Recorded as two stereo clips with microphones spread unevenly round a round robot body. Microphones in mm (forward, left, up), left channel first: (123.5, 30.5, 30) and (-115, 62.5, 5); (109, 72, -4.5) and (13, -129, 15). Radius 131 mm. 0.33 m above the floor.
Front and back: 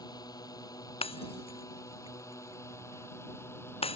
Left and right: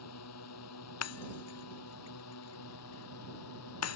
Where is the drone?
65° left; by 4.0 s 70° left.